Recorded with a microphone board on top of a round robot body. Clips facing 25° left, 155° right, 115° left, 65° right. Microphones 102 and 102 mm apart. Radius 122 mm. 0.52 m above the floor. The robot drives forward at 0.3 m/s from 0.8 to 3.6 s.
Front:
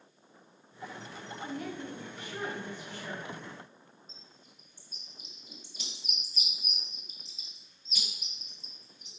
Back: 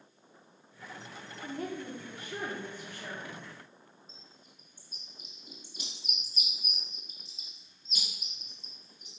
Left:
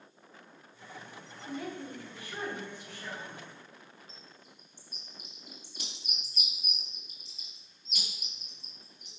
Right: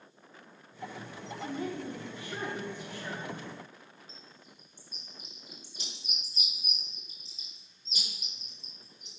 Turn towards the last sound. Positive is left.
turn(degrees=155)